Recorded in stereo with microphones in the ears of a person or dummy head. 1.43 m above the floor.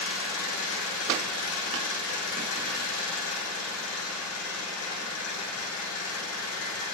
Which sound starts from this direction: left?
An engine running, at 0.0 s.